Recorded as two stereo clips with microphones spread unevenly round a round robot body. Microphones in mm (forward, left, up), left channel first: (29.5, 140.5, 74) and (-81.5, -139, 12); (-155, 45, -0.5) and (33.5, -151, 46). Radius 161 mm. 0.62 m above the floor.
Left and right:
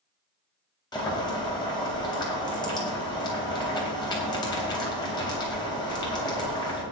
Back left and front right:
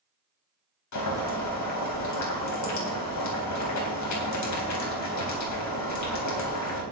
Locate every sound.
0.9 s boiling: 145° left, 4 m